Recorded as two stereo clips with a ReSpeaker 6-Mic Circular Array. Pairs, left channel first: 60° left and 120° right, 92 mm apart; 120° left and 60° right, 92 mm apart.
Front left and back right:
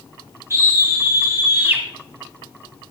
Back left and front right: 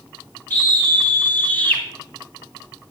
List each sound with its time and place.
0.5 s a scream: 175° right, 2.5 m; by 1.8 s straight behind, 1.7 m